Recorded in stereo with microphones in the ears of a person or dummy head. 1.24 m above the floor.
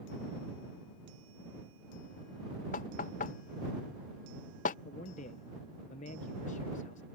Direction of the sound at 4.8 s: 40° left (ahead or behind).